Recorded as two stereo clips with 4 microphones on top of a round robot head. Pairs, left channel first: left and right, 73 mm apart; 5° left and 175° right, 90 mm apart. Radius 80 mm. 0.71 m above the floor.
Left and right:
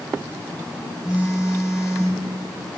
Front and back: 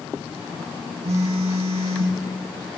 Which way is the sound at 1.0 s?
170° right.